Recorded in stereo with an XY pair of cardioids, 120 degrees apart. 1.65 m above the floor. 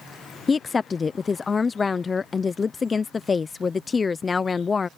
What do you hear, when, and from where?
0.5 s a woman speaking: 25° left